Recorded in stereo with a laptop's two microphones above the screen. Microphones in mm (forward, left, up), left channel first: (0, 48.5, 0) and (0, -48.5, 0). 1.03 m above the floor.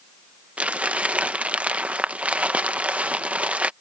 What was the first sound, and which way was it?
Crumpling, 10° right (ahead or behind).